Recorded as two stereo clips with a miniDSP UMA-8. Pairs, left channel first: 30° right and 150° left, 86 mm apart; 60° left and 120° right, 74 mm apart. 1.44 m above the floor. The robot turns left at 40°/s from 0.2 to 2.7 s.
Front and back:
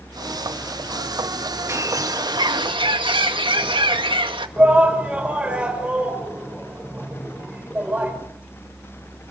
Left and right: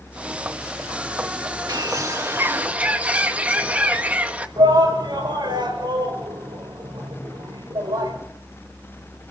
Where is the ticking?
I don't hear ticking.